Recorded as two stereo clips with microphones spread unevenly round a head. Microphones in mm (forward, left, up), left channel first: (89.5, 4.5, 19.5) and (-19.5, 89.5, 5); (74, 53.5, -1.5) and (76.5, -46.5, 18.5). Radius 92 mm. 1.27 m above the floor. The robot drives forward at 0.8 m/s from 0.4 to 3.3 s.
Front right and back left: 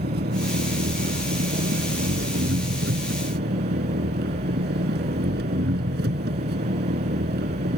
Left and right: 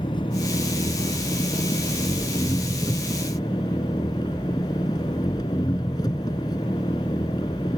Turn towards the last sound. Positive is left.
turn(degrees=165)